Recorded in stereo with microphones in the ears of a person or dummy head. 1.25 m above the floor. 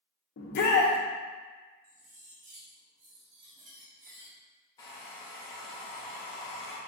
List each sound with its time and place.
0.4 s a shout: 50° left (ahead or behind), 0.8 m
1.8 s cutlery clinking: 40° right (ahead or behind), 0.9 m
4.8 s a hair dryer: 20° left (ahead or behind), 0.6 m